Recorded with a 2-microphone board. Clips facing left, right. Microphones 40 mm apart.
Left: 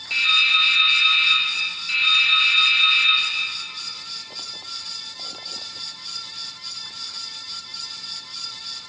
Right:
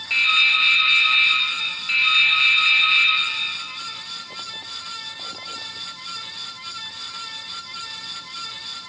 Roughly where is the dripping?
Centre.